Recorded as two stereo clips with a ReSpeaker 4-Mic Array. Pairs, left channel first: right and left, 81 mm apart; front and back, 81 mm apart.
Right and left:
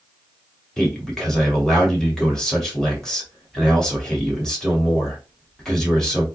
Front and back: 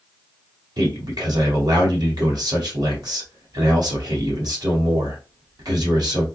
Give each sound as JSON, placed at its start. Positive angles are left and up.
{"t": 0.8, "sound": "a man speaking", "azimuth_deg": -175, "distance_m": 1.7}